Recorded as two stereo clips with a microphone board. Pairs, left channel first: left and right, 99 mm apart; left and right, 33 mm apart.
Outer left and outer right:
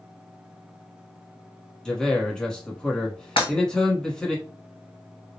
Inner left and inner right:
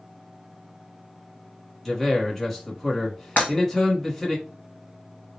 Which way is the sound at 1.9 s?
5° left (ahead or behind).